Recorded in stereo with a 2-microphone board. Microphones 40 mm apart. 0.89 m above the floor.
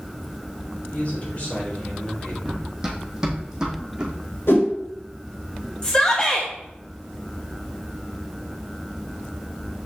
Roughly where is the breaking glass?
I don't hear breaking glass.